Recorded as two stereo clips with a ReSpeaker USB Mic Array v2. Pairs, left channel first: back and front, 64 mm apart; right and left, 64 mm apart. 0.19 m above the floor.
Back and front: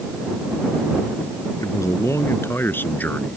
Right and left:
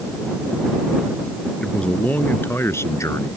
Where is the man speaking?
165° right; by 3.4 s 115° right.